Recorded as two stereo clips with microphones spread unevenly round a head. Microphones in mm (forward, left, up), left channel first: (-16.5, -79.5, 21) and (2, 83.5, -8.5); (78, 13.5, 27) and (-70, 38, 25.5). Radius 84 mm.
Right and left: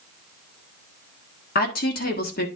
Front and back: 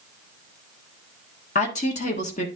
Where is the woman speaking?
55° right, 1.4 m.